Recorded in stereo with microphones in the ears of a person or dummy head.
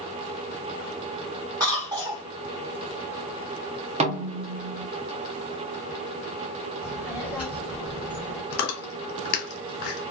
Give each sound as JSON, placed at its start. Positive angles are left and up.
{"t": 1.6, "sound": "a cough", "side_deg": -15, "distance_m": 1.0}
{"t": 4.0, "sound": "a snare drum", "side_deg": -35, "distance_m": 0.5}
{"t": 6.8, "sound": "a child speaking", "side_deg": -5, "distance_m": 0.8}
{"t": 8.5, "sound": "chewing", "side_deg": 55, "distance_m": 0.9}